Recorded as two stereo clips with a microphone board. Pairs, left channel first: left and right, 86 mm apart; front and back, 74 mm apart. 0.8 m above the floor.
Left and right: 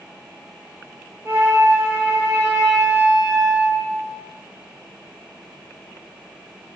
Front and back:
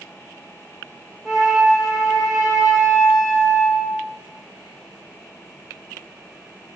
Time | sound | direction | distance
1.2 | a flute | 110° right | 0.5 m